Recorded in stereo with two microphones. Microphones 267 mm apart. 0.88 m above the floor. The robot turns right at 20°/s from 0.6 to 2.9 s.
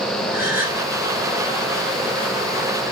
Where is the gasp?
10° right (ahead or behind), 2.5 m; by 0.8 s 5° right (ahead or behind), 2.5 m.